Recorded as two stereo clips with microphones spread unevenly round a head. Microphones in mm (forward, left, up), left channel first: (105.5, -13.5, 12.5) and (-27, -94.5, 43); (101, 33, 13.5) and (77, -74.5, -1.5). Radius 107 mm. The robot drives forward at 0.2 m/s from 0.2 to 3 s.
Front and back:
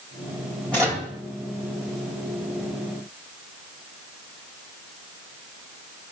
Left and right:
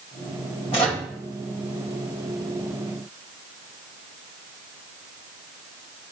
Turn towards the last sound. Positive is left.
turn(degrees=145)